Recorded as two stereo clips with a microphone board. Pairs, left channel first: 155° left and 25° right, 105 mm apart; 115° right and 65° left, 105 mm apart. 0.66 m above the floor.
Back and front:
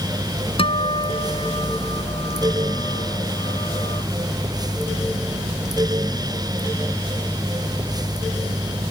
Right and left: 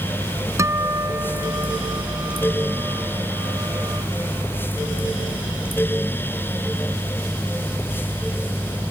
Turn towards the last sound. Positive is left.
turn(degrees=130)